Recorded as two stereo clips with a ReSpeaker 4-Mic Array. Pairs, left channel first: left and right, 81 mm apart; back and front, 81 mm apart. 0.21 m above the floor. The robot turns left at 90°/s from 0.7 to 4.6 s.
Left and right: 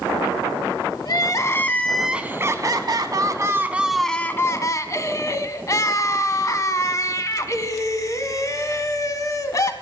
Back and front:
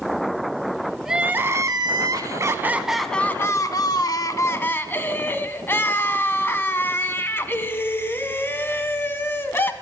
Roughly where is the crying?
Left.